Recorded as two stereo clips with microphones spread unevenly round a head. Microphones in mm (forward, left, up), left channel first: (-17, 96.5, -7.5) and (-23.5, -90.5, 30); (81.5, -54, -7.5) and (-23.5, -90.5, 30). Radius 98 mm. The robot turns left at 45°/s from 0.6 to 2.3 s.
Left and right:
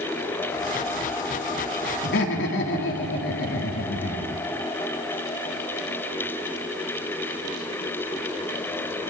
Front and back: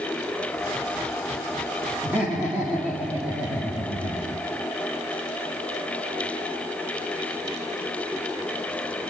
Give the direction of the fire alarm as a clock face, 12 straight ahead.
No fire alarm in this recording.